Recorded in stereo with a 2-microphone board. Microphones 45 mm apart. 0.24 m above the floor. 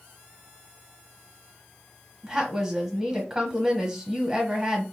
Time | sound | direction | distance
2.2 | a woman speaking | 10° right (ahead or behind) | 1.1 m